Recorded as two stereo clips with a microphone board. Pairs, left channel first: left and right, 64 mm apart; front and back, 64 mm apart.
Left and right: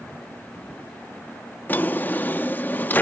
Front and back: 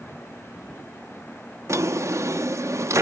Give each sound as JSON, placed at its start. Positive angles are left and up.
{"t": 1.7, "sound": "a drawer", "azimuth_deg": 145, "distance_m": 0.5}